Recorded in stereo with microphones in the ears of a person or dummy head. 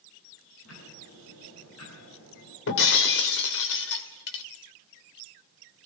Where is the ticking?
90° left, 9.5 m.